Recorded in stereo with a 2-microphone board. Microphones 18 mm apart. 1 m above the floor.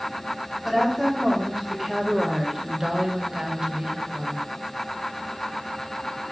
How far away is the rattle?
I don't hear a rattle.